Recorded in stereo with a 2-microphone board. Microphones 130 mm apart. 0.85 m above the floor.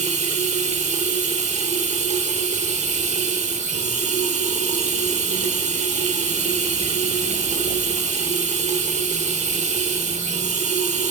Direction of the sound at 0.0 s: 60° right (ahead or behind).